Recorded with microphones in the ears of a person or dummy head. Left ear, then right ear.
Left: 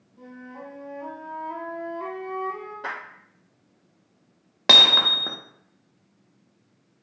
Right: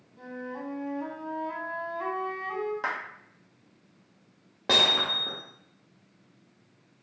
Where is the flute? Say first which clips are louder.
Right 4 dB; 30° right (ahead or behind), 0.8 m.